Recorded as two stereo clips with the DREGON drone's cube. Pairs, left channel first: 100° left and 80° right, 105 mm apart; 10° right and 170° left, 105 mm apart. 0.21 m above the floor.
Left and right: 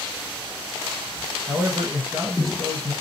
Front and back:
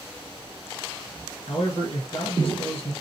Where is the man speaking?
25° right, 2.5 m.